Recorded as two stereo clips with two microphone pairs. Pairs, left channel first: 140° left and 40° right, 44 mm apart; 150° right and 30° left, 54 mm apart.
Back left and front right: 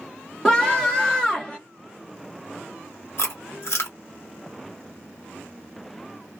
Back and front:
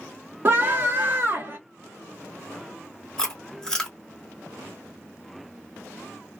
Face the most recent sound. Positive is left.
turn(degrees=135)